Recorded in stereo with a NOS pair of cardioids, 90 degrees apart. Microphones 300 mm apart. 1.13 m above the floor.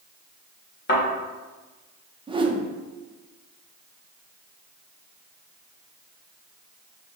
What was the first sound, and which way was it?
A thud, 40° left.